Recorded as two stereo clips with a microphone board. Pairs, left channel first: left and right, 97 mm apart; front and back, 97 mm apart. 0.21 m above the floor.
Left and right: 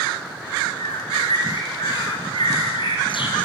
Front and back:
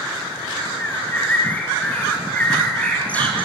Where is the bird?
75° left, 3.5 m.